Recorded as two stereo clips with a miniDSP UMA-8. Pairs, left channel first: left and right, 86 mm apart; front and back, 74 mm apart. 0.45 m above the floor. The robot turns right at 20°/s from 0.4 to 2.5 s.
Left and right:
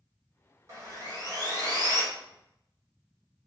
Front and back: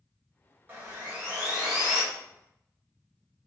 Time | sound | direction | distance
0.7 | sawing | 125° right | 0.8 m